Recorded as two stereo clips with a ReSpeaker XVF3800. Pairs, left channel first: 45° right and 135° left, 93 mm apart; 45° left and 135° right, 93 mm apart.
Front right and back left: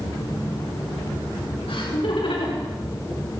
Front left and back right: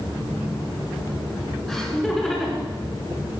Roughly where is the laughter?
Ahead right.